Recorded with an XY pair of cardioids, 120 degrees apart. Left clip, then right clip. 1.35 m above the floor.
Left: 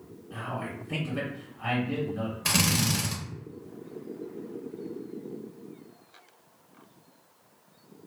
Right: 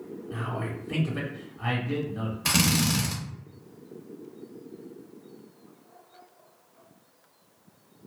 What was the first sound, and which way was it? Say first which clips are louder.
A man speaking: right 1 dB; 20° right.